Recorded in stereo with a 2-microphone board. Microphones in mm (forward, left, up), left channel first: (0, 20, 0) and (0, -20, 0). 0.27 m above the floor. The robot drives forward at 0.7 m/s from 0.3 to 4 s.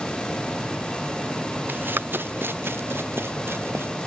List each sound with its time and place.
1.7 s running footsteps: 55° right (ahead or behind); by 3.9 s 85° right